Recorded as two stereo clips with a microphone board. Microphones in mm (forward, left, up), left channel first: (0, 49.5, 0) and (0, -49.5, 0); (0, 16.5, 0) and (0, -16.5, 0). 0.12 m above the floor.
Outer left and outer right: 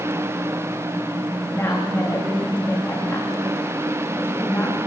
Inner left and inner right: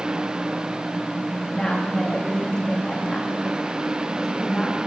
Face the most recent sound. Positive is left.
turn(degrees=20)  # may be behind; listen again after turning